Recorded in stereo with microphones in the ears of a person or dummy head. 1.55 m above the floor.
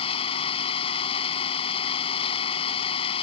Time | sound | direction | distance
0.0 | an engine running | 35° left (ahead or behind) | ?